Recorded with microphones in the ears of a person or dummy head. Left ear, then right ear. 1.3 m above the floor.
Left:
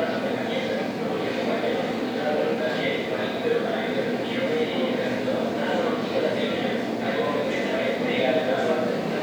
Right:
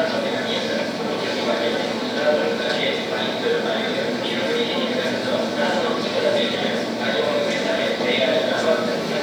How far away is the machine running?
About 1.9 m.